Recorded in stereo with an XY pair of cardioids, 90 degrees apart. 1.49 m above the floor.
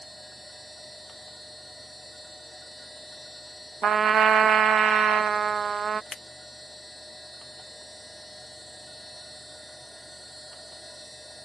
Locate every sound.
0.0 s a machine running: 5° left
3.8 s a trumpet: 45° right
6.1 s scissors: 35° left